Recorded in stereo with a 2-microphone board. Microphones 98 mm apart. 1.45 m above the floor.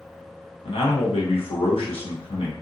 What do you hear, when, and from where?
0.7 s a man speaking: 70° left (ahead or behind), 1.4 m